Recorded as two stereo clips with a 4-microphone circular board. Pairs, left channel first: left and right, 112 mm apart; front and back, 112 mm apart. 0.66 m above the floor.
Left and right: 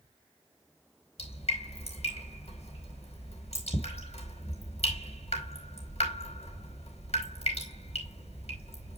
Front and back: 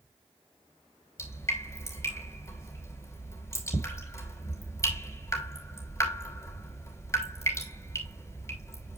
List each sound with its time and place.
1.2 s dripping: 65° left, 3 m